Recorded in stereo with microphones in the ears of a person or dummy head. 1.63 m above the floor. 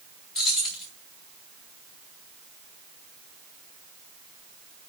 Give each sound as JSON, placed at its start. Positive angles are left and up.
{"t": 0.3, "sound": "keys jangling", "side_deg": 0, "distance_m": 2.5}